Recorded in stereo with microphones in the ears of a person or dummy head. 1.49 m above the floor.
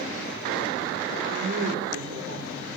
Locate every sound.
1.3 s a woman speaking: 75° right (ahead or behind), 3.5 m; by 2.8 s 70° right (ahead or behind), 5 m